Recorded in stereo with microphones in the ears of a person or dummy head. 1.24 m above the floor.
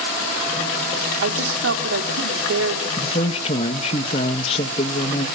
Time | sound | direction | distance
1.2 | a woman speaking | 80° right | 3 m
3.0 | a man speaking | 40° left (ahead or behind) | 1.5 m